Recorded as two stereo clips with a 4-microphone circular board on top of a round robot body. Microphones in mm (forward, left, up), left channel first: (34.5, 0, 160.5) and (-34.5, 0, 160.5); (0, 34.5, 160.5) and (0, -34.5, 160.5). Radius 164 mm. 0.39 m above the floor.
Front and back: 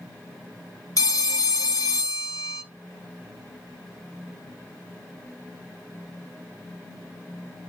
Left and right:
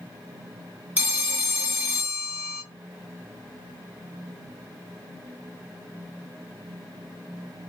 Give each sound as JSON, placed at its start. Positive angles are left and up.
{"t": 1.0, "sound": "a phone ringing", "azimuth_deg": -25, "distance_m": 1.5}